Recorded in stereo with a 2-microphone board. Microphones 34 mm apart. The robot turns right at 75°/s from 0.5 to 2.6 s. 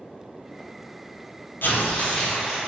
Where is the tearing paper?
115° left, 0.7 m; by 2.6 s 175° right, 0.7 m.